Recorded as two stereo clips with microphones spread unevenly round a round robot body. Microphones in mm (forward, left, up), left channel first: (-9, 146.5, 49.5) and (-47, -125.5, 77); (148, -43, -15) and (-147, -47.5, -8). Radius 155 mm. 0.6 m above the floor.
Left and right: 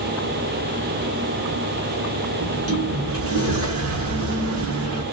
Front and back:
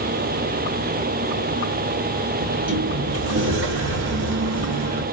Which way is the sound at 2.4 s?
135° right.